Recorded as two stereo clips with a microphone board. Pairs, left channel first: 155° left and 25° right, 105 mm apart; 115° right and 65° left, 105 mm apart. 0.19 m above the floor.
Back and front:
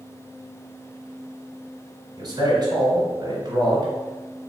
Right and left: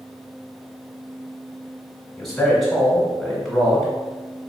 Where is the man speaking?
25° right, 1.6 m.